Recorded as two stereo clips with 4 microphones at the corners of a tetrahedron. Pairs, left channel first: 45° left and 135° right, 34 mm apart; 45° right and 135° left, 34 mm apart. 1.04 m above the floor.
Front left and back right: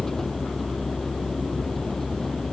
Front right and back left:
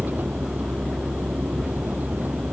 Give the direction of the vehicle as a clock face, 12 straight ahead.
8 o'clock.